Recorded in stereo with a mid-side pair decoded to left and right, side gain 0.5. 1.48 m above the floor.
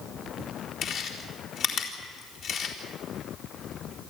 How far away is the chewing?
About 4 m.